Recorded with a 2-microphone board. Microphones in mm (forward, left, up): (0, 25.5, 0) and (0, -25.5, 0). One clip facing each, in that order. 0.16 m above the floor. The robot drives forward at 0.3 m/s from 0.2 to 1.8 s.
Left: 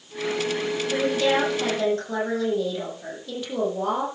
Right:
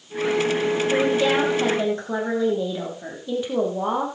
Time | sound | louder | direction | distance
0.9 | a woman speaking | right 1 dB | 20° right (ahead or behind) | 7 m